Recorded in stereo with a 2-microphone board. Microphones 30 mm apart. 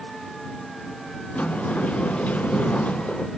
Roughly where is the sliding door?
Left.